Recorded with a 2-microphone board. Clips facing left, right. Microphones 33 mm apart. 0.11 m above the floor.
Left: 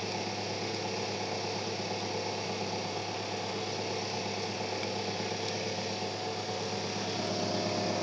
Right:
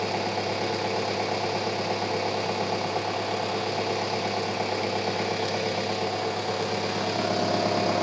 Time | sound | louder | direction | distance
0.0 | an engine running | right 8 dB | 75° right (ahead or behind) | 1.9 m